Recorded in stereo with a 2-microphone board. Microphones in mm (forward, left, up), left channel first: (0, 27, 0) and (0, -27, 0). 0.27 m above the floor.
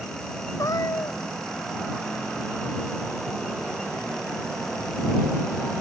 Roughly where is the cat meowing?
Left.